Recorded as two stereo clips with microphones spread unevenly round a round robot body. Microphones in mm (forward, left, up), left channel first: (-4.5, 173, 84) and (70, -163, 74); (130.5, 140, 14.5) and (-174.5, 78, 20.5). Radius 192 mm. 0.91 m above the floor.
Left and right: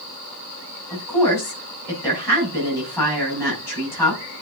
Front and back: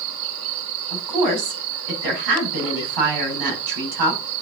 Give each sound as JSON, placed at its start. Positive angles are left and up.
{"t": 0.9, "sound": "a woman speaking", "azimuth_deg": -175, "distance_m": 6.0}